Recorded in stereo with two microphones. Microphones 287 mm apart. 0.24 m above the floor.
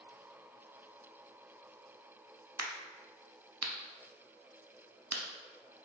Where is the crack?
60° right (ahead or behind), 0.6 m.